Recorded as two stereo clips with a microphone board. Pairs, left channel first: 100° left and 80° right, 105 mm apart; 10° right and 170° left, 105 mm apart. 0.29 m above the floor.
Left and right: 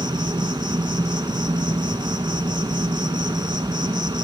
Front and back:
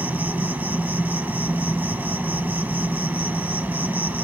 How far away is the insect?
About 0.8 m.